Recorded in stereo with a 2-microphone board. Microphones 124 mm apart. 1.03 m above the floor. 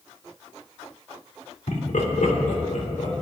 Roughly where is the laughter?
Left.